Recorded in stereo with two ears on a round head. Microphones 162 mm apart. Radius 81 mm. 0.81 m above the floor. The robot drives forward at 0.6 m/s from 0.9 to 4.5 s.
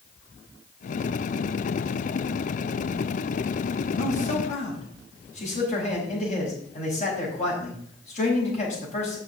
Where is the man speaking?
45° left (ahead or behind), 4.5 m; by 9.2 s 40° left (ahead or behind), 4.5 m.